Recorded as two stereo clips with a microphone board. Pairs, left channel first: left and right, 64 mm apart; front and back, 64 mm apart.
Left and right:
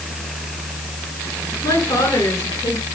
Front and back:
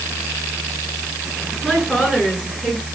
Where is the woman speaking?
100° left, 9 m; by 2.9 s 95° left, 7 m.